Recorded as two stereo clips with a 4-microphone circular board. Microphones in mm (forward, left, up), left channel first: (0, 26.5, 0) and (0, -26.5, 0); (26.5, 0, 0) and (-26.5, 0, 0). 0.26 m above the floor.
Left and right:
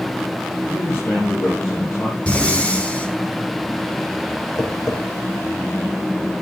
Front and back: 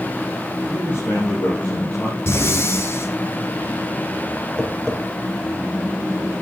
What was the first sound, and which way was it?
A man speaking, 60° left.